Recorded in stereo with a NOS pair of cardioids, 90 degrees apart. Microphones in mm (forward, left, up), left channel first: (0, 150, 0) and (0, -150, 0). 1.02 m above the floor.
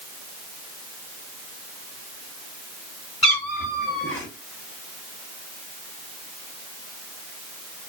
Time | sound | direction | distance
3.2 | a cat meowing | 10° left | 1.6 m